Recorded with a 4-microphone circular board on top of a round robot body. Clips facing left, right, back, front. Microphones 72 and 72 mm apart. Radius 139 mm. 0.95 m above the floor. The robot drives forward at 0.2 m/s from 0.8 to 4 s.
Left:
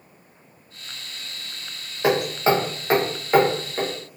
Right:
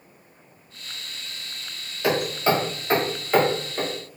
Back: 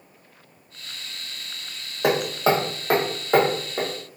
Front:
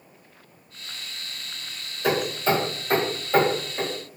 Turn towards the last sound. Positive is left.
turn(degrees=165)